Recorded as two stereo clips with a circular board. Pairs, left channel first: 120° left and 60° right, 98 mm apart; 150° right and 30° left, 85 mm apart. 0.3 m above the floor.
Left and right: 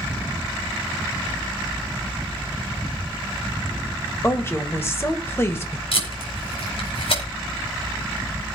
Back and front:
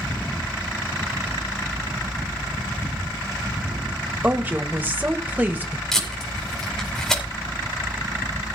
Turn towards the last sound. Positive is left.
turn(degrees=125)